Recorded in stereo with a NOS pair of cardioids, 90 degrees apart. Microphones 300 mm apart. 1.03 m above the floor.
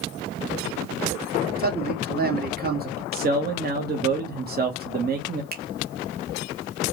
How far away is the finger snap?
About 1.2 m.